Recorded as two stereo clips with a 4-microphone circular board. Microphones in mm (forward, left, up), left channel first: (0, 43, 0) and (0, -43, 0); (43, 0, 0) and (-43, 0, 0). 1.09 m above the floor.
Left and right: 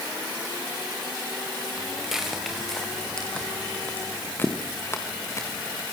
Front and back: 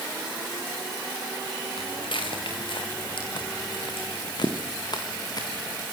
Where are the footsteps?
10° right, 4 m; by 5.8 s 40° left, 4.5 m.